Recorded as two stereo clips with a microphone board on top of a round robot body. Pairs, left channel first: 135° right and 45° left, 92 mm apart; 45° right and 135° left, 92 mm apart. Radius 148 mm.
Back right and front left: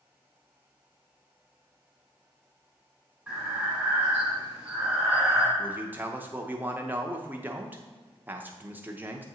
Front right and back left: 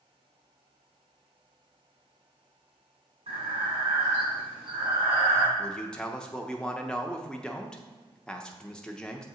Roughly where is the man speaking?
Ahead.